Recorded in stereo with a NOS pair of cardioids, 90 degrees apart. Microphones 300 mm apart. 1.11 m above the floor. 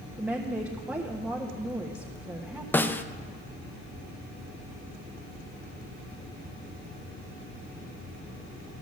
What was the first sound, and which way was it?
A woman speaking, 5° right.